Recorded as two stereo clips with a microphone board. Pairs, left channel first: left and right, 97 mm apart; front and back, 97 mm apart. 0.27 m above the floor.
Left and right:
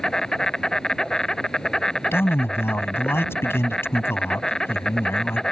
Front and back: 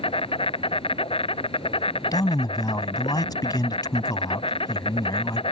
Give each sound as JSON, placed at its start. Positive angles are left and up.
{"t": 0.0, "sound": "an insect", "azimuth_deg": 5}
{"t": 2.1, "sound": "a man speaking", "azimuth_deg": 30}